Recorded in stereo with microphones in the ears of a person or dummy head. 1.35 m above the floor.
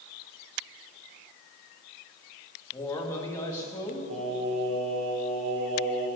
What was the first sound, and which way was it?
A man speaking, 15° left (ahead or behind).